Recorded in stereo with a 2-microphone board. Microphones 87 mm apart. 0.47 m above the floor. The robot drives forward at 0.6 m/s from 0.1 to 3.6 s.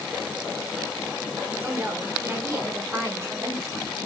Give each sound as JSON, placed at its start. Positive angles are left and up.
{"t": 1.6, "sound": "a woman speaking", "side_deg": -25, "distance_m": 1.5}